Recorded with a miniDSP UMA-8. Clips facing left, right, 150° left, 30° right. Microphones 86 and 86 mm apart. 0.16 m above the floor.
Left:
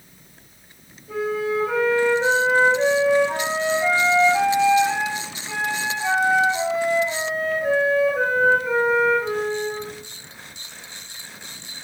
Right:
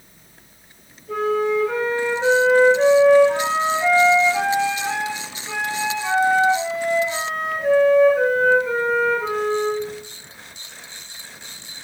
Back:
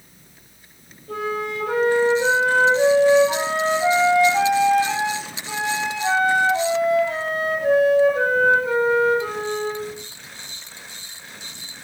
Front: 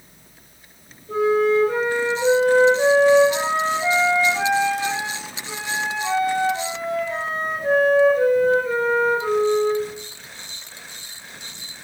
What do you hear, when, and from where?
1.1 s a flute: 175° left, 5.5 m